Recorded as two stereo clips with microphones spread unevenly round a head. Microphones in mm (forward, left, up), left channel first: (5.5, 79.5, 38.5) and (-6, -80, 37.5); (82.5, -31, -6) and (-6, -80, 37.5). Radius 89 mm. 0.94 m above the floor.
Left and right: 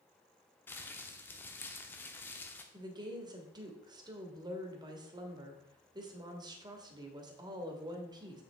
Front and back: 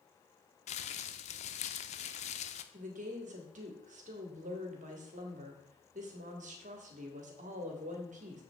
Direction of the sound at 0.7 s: 10° left.